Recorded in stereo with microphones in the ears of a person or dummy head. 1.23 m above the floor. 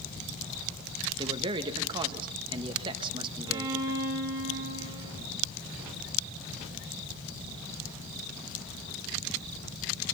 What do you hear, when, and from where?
1.2 s a man speaking: 30° right (ahead or behind), 1.4 m
3.5 s a violin: 25° right (ahead or behind), 6.5 m